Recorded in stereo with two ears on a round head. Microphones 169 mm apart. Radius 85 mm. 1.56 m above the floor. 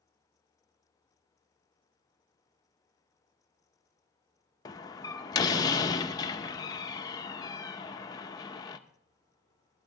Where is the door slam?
20° left (ahead or behind), 0.8 m.